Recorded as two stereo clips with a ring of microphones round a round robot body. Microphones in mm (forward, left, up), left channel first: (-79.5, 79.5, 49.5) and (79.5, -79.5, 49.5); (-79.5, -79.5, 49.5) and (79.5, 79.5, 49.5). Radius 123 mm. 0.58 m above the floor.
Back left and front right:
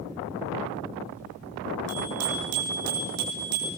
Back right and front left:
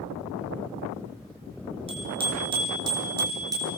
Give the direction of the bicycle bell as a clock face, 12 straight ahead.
1 o'clock.